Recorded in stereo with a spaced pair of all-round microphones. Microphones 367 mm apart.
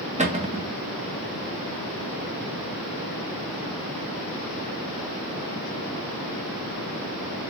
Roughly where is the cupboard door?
Centre.